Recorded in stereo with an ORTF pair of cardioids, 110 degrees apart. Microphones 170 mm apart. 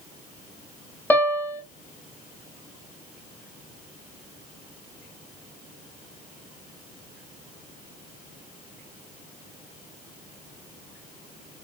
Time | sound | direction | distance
1.1 | a piano | 10° left | 1.0 m